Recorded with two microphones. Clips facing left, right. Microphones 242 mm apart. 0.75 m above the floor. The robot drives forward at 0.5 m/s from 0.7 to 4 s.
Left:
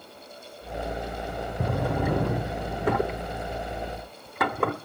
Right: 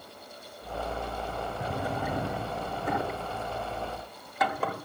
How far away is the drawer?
About 1.5 m.